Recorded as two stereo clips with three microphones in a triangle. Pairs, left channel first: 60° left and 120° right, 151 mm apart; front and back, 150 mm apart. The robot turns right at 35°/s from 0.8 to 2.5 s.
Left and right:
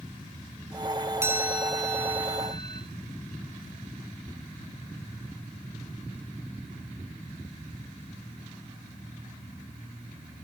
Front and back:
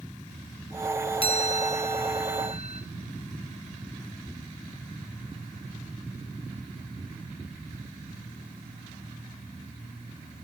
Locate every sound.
1.2 s a chime: 50° right, 2 m; by 2.8 s 5° right, 2 m